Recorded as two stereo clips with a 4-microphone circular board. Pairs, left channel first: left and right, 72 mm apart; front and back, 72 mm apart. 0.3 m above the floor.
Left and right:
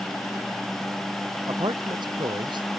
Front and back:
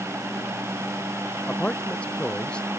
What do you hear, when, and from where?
1.5 s a man speaking: 75° right; by 2.7 s 80° right